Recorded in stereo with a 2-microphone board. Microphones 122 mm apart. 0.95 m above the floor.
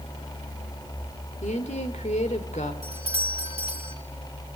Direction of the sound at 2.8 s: 55° right (ahead or behind).